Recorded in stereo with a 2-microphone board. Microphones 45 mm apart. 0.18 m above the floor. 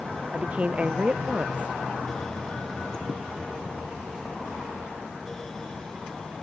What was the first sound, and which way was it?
A woman speaking, 30° right (ahead or behind).